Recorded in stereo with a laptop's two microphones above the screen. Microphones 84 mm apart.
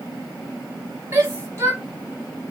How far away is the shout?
About 2.5 m.